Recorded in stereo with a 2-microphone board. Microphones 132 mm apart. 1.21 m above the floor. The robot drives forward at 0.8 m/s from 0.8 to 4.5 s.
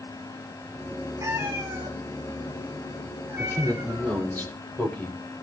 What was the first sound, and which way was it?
A cat meowing, 25° right (ahead or behind).